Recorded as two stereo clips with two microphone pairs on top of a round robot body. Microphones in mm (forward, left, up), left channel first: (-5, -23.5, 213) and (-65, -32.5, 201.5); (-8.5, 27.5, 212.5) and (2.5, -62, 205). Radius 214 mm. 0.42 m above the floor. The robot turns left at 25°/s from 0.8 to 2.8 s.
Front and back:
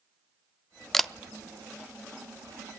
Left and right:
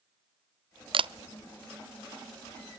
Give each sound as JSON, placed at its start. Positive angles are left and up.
{"t": 0.9, "sound": "a camera shutter", "azimuth_deg": -85, "distance_m": 0.6}